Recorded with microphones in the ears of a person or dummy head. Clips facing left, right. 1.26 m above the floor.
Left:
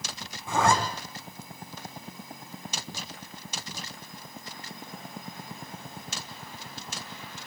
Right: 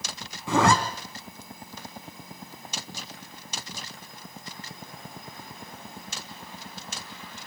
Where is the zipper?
60° right (ahead or behind), 2.5 m.